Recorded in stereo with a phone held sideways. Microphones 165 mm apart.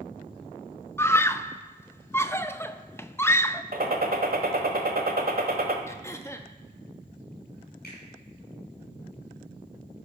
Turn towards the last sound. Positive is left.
turn(degrees=65)  # may be behind; listen again after turning